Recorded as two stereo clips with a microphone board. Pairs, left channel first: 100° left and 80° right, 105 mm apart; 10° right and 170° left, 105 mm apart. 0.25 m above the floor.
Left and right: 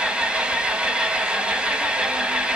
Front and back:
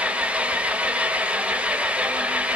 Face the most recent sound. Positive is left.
turn(degrees=-135)